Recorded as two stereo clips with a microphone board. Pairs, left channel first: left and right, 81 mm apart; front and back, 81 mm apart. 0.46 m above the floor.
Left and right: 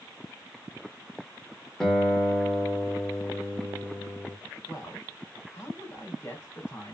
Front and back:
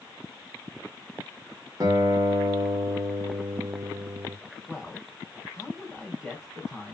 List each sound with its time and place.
1.8 s a guitar: 175° left, 0.8 m
4.7 s a man speaking: 95° left, 1.5 m